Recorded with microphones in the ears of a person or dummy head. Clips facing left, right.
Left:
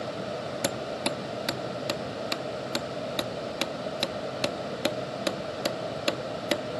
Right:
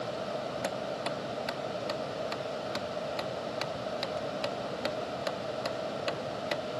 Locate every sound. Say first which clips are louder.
0.6 s hammering: left 3 dB; 45° left (ahead or behind)